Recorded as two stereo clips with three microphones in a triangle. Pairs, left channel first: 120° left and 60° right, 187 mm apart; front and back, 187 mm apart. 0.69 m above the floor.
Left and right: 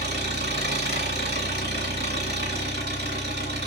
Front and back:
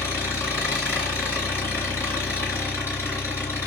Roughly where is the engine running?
Right.